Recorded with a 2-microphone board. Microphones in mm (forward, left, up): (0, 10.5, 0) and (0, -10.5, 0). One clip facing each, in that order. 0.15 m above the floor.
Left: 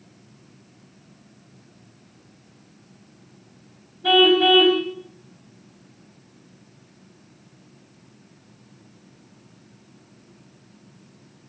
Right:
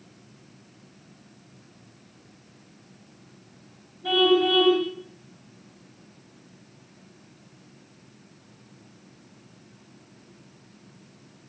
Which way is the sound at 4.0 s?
40° left (ahead or behind).